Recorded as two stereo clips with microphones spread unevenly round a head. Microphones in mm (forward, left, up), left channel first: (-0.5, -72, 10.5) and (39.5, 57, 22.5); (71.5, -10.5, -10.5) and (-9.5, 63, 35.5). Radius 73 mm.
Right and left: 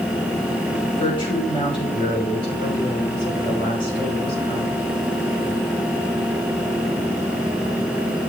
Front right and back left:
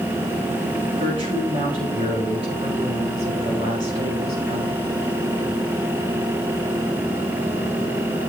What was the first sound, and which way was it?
A woman speaking, 165° right.